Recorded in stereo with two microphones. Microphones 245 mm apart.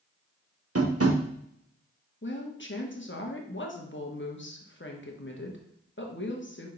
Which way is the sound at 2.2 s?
50° left (ahead or behind).